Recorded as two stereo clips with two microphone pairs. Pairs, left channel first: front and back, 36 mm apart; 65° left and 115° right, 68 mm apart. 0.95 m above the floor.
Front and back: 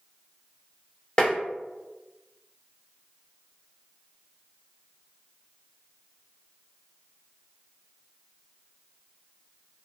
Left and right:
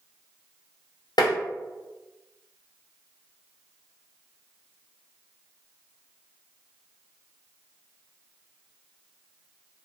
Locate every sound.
1.2 s tapping: 65° left, 0.6 m